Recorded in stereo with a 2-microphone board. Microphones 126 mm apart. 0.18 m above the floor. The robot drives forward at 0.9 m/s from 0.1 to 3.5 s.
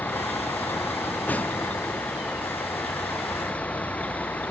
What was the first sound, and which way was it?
A vehicle, 10° left (ahead or behind).